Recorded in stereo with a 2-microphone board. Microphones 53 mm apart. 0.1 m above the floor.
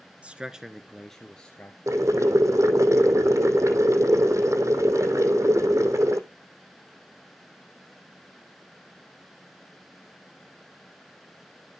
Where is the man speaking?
25° right (ahead or behind), 1.2 m; by 1.8 s 25° left (ahead or behind), 2.0 m.